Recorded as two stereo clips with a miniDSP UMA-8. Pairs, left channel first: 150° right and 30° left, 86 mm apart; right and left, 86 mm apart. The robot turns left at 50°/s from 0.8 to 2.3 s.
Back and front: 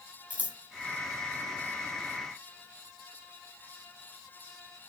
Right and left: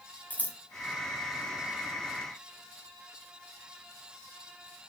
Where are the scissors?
35° right, 2.0 m.